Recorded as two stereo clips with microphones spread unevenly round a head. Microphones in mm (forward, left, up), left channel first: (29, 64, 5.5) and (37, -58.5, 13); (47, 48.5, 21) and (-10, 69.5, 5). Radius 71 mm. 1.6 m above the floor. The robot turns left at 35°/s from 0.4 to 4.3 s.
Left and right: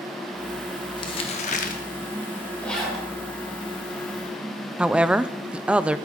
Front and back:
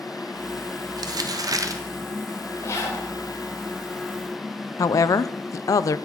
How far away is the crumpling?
About 1.5 m.